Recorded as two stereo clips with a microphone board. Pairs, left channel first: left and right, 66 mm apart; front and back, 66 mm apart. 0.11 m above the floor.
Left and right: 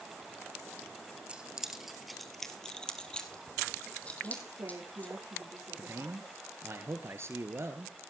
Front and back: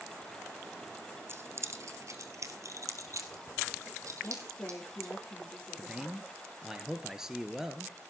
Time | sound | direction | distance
1.3 | keys jangling | 155° right | 1.3 m
4.2 | a woman speaking | 70° right | 4.5 m
5.8 | a man speaking | 100° right | 1.7 m